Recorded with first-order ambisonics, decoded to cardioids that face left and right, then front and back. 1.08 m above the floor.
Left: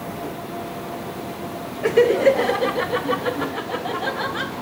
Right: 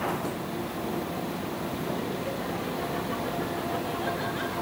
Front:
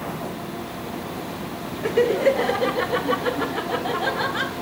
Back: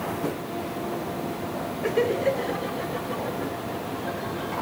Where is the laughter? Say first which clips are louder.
Left 22 dB, front 5 dB; 85° left, 0.7 m; by 4.5 s 30° left, 1.9 m.